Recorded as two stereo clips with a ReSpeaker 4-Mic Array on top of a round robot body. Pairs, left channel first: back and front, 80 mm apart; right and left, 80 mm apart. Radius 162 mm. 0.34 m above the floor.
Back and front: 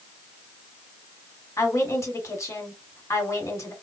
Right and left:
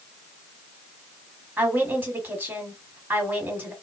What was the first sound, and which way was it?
A woman speaking, 150° left.